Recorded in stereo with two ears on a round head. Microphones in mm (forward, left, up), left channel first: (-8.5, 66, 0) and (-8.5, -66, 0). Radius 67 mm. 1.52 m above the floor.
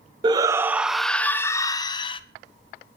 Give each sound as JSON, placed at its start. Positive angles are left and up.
{"t": 0.2, "sound": "a shout", "side_deg": -30, "distance_m": 0.8}